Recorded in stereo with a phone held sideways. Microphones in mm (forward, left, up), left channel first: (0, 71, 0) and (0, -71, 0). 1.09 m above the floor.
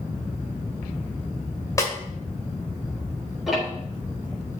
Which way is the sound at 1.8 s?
25° left (ahead or behind).